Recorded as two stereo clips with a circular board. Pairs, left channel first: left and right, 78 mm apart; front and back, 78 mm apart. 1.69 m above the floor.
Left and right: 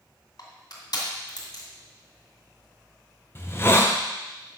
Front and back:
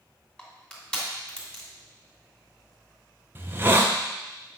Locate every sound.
0.4 s crushing: 75° left, 2.5 m
3.4 s a hiss: 130° left, 0.8 m